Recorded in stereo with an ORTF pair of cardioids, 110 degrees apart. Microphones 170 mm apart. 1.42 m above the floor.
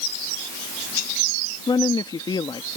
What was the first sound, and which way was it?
A woman speaking, 25° left.